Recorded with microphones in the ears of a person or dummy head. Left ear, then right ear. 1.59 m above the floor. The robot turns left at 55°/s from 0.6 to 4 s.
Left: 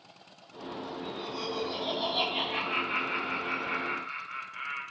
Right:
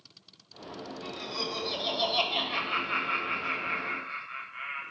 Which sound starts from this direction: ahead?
Laughter, at 1.0 s.